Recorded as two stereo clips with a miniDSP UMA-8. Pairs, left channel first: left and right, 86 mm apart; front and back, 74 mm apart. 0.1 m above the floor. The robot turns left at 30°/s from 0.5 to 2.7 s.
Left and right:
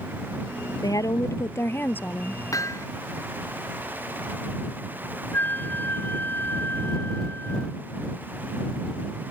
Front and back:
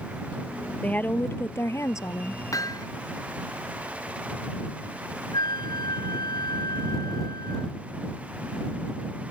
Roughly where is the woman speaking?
Ahead left.